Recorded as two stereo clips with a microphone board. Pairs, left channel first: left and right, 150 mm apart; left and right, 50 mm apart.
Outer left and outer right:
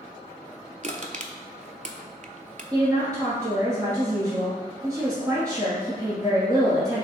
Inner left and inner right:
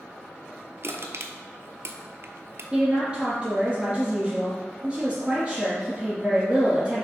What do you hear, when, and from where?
0.8 s crushing: 60° right (ahead or behind), 0.5 m
2.7 s a woman speaking: 20° right (ahead or behind), 1.6 m